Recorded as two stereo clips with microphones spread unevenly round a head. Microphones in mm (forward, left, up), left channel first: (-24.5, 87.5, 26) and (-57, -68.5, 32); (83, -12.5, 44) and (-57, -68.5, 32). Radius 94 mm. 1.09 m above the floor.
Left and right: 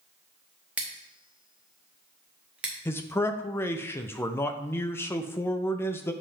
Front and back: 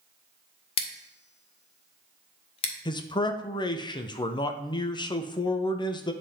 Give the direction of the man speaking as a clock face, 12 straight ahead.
11 o'clock.